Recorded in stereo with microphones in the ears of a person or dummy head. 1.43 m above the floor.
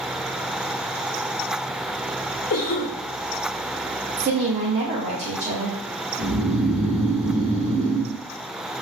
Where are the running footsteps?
I don't hear running footsteps.